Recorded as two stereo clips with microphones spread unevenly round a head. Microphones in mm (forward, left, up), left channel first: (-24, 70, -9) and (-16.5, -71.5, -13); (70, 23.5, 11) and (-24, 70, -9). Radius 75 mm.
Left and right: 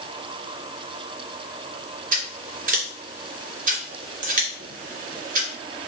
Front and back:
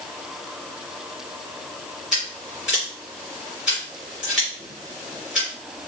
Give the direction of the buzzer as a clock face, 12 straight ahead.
No buzzer in this recording.